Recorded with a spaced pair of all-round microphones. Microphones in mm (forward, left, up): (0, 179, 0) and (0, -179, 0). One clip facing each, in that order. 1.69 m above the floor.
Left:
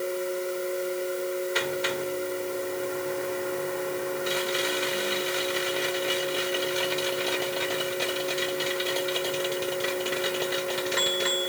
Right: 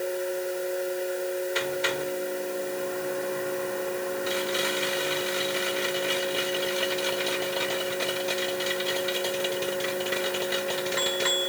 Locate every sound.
0.0 s a fan: 10° left (ahead or behind)